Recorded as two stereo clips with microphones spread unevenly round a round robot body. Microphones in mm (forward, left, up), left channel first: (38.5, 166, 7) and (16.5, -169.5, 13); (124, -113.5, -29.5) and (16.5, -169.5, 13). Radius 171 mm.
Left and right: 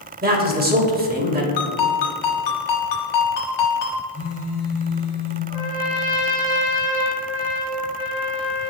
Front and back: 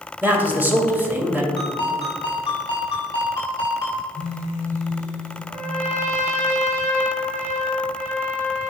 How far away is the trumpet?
About 1.6 m.